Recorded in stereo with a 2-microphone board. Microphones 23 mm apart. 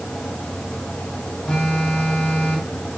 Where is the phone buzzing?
70° left (ahead or behind), 5.5 m.